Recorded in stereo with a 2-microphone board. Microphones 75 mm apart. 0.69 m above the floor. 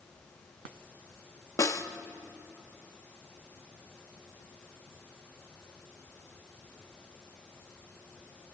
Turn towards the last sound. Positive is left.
turn(degrees=45)  # may be behind; listen again after turning